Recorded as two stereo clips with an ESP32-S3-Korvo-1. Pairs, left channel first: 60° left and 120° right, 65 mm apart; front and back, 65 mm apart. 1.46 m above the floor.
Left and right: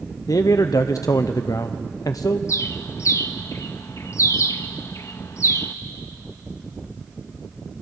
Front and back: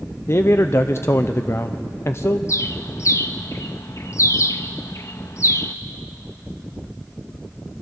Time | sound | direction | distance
0.3 | a man speaking | 45° left | 0.6 m
2.5 | a bird | 30° left | 1.0 m